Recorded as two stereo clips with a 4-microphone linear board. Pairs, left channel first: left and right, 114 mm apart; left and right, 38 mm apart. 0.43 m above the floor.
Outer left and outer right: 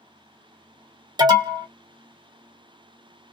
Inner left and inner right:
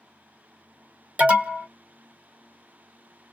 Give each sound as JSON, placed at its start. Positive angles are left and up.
{"t": 1.2, "sound": "an alarm", "side_deg": -40, "distance_m": 1.1}